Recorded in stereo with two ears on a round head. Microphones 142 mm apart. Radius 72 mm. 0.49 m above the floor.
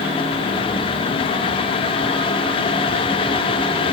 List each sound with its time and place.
Only background noise.